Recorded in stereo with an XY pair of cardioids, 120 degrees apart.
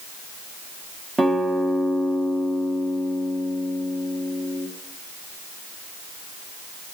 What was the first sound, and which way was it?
A guitar, 20° right.